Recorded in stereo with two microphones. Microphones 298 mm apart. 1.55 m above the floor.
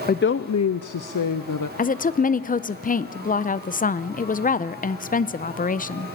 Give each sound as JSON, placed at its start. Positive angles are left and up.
{"t": 0.1, "sound": "a woman speaking", "side_deg": 30, "distance_m": 0.5}
{"t": 1.8, "sound": "a woman speaking", "side_deg": 25, "distance_m": 0.5}